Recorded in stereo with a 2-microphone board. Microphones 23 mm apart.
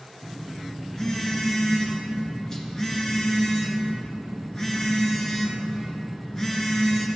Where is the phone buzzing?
25° left (ahead or behind), 3 m.